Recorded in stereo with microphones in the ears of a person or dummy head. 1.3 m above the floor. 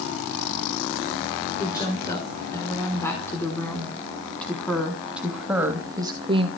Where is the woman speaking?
25° left (ahead or behind), 6 m; by 6.5 s 30° right (ahead or behind), 2 m.